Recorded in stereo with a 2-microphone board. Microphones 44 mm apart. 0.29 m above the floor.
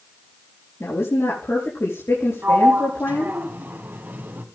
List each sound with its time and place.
0.8 s a woman speaking: 75° left (ahead or behind), 5.5 m
2.4 s a sliding door: 45° right (ahead or behind), 2.0 m